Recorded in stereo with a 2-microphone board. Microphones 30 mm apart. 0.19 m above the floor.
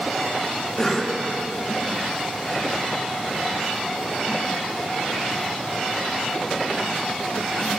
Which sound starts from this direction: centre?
A cough, at 0.8 s.